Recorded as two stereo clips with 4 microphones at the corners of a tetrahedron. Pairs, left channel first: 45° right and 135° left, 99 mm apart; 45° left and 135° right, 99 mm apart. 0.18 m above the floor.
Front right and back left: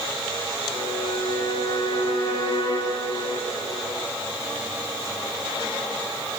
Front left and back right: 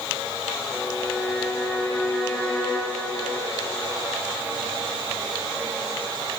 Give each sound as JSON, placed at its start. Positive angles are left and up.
{"t": 0.7, "sound": "a violin", "azimuth_deg": -30, "distance_m": 6.5}